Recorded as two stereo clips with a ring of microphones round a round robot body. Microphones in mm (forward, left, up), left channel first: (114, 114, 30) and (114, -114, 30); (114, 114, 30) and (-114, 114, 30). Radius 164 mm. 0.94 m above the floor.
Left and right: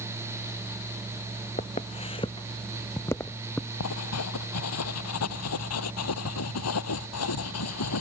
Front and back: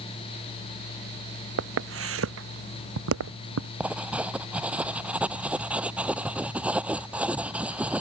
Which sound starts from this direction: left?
Writing, at 3.8 s.